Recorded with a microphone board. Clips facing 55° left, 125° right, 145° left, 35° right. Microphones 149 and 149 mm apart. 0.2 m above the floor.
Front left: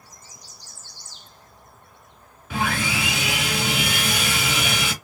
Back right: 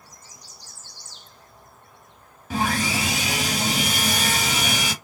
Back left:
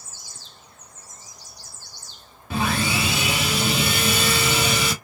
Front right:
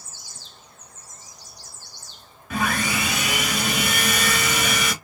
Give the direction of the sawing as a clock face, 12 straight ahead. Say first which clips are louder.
Back right 1 dB, back left 1 dB; 5 o'clock.